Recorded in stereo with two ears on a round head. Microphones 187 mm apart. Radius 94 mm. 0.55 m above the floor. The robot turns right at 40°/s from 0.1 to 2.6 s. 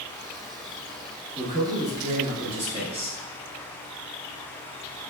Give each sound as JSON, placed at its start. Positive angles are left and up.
{"t": 1.4, "sound": "a man speaking", "azimuth_deg": -105, "distance_m": 1.1}